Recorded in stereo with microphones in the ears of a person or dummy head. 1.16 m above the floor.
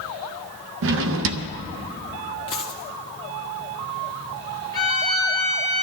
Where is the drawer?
65° right (ahead or behind), 0.6 m.